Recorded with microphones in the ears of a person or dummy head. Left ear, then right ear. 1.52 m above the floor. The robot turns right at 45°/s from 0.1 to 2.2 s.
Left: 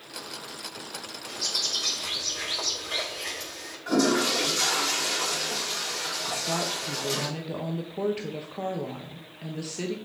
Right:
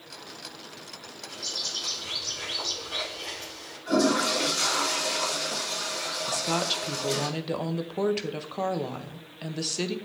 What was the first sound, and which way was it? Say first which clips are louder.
A bird: left 4 dB; 75° left.